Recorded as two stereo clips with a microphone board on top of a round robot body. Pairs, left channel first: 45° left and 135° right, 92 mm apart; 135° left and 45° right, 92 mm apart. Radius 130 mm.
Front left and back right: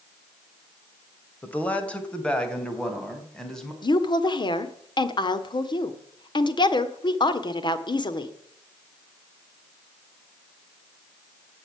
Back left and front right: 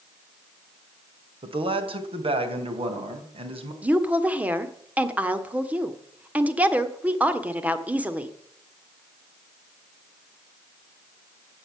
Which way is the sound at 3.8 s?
25° left.